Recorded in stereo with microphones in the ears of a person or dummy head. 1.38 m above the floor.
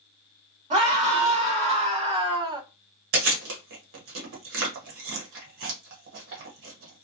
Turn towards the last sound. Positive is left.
turn(degrees=-65)  # may be behind; listen again after turning